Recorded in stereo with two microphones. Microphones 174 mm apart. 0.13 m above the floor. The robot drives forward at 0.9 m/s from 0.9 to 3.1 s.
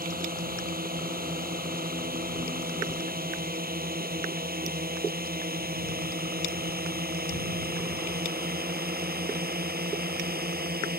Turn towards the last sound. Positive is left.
turn(degrees=-60)  # may be behind; listen again after turning